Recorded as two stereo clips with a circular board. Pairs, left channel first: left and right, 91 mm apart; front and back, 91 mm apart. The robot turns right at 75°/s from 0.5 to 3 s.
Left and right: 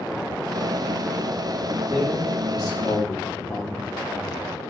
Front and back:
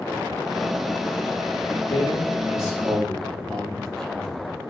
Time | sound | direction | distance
1.9 | a man speaking | straight ahead | 1.7 m